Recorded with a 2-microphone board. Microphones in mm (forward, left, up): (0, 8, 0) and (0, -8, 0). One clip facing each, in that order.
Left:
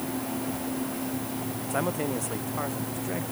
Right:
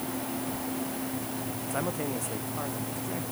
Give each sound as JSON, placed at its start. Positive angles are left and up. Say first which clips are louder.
{"t": 1.7, "sound": "a man speaking", "louder": "left 4 dB", "side_deg": 15}